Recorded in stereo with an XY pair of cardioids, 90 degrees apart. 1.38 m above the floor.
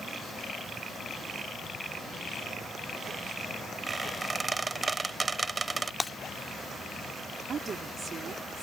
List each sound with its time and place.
3.9 s a squeak: 30° right
6.0 s breaking glass: 20° left
7.5 s a woman speaking: 55° right